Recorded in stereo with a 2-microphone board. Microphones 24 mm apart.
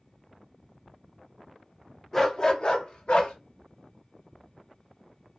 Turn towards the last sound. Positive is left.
turn(degrees=55)  # may be behind; listen again after turning